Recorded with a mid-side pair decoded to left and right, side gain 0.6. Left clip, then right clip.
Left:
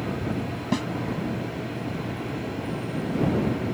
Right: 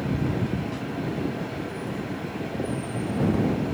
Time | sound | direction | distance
0.7 | a snare drum | 55° left | ?